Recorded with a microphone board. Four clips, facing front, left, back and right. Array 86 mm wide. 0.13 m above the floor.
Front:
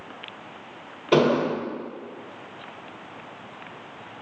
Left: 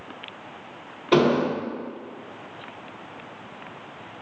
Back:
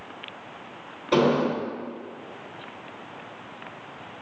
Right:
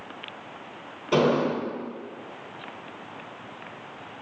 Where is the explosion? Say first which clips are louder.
Left 2 dB, front 1 dB; 80° left, 1.8 m.